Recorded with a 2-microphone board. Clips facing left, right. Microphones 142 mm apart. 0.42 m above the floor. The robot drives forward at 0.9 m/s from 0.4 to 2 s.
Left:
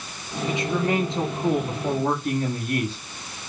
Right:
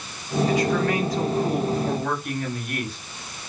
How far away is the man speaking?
About 7 m.